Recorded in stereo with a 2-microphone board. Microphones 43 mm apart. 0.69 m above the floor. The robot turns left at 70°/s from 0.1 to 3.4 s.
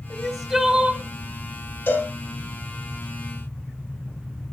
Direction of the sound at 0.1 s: 30° left.